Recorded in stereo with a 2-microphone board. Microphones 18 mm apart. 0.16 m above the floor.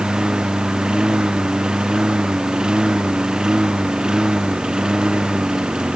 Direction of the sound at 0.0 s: 35° right (ahead or behind).